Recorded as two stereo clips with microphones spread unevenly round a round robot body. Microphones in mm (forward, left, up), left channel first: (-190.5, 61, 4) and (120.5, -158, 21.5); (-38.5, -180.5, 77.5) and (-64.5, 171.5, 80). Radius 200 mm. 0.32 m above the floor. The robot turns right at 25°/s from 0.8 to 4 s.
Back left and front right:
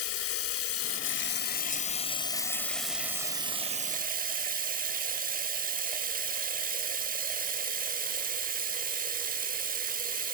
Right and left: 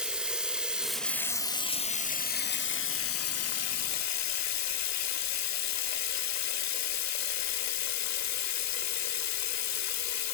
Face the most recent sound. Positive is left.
turn(degrees=-100)